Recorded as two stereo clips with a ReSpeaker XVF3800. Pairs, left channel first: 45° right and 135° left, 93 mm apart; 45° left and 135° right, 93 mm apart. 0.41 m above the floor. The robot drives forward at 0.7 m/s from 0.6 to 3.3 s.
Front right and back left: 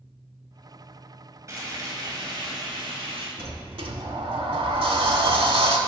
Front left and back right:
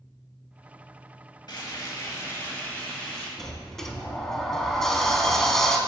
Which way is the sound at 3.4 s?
130° left.